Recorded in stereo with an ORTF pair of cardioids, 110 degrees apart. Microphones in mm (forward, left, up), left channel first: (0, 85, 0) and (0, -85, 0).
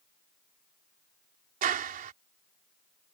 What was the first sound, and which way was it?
A clap, 55° right.